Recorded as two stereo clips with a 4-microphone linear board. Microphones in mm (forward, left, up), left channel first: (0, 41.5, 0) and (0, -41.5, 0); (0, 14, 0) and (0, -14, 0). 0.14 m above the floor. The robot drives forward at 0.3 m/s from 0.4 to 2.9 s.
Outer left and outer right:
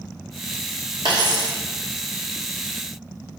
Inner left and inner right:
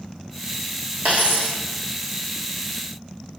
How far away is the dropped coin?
About 2 m.